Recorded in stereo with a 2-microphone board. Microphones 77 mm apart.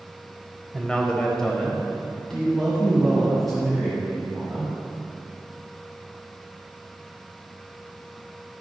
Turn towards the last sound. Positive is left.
turn(degrees=0)  # may be behind; listen again after turning